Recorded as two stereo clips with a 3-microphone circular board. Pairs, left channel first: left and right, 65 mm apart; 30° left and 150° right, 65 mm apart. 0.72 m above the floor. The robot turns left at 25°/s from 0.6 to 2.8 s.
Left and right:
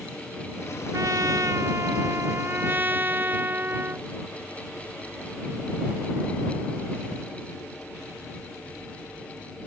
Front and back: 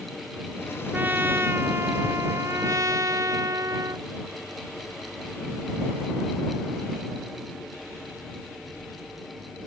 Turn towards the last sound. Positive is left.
turn(degrees=-140)